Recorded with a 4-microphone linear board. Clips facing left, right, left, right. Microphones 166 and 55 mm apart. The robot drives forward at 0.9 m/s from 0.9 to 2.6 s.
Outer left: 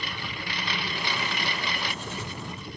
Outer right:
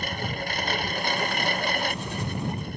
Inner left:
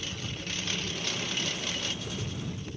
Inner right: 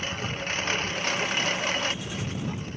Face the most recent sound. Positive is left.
turn(degrees=-45)  # may be behind; listen again after turning